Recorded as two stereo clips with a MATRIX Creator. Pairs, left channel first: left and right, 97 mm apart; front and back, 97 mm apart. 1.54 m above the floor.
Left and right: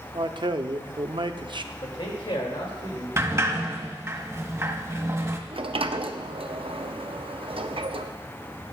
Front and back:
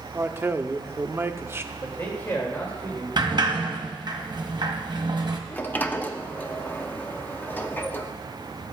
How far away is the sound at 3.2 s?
About 0.9 m.